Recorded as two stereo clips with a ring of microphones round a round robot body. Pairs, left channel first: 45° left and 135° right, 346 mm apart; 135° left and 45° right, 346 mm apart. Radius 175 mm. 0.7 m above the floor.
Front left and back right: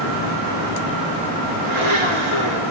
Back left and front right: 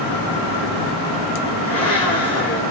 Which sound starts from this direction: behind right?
A blender, at 1.6 s.